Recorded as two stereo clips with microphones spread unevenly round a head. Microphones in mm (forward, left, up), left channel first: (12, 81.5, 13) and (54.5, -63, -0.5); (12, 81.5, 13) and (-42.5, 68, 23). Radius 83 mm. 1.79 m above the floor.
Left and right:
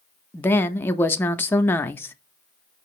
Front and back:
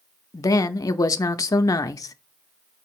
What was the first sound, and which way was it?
A woman speaking, 35° left.